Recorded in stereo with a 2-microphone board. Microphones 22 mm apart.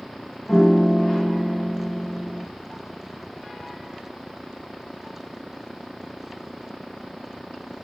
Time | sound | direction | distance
0.5 | a piano | 30° left (ahead or behind) | 1.9 m